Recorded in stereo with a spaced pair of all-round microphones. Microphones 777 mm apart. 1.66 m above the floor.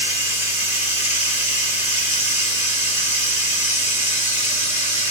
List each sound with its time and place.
0.0 s running water: 10° left (ahead or behind), 2.5 m